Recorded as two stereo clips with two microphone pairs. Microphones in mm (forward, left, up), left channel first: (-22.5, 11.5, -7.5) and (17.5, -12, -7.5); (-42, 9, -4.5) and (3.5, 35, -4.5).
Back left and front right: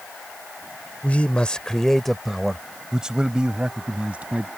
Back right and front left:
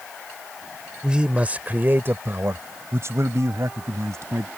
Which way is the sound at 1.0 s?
100° left.